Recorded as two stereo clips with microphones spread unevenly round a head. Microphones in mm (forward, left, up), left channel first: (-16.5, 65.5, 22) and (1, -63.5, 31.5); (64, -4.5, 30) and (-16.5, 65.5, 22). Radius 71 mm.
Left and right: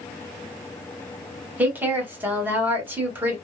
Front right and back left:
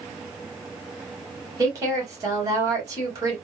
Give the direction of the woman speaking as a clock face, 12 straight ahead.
5 o'clock.